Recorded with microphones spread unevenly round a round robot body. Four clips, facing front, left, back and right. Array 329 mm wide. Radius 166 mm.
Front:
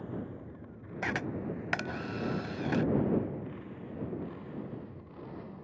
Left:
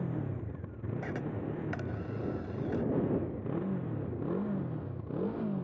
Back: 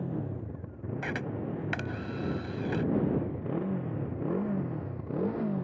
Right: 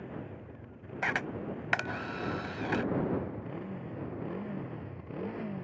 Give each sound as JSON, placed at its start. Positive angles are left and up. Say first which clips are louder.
{"t": 0.0, "sound": "a motorcycle", "louder": "left 5 dB, back 5 dB", "azimuth_deg": 140}
{"t": 1.0, "sound": "a camera shutter", "louder": "right 4 dB, front 1 dB", "azimuth_deg": -70}